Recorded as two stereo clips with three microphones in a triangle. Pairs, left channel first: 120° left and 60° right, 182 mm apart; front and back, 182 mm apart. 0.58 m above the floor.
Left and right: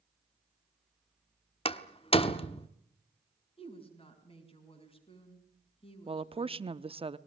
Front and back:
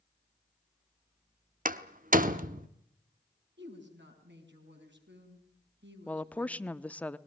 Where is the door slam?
165° left, 1.0 m.